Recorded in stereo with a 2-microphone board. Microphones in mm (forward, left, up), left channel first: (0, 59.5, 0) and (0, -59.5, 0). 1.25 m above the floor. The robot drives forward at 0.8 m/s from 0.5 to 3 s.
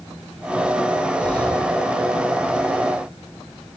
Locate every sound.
1.2 s breathing: 10° left (ahead or behind), 5.5 m